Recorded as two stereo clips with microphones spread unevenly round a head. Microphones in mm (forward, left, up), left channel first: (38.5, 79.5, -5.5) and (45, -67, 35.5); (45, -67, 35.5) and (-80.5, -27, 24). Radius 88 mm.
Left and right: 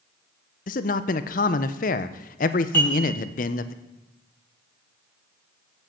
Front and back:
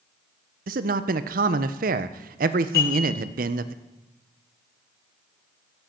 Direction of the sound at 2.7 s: 15° left.